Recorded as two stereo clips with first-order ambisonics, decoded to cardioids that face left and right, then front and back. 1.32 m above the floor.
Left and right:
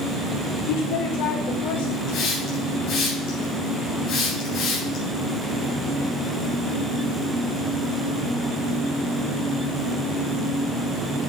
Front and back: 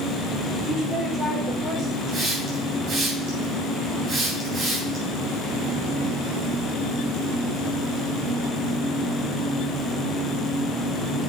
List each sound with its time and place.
0.7 s a woman speaking: 95° left, 3.5 m
2.1 s a hiss: 125° left, 3.5 m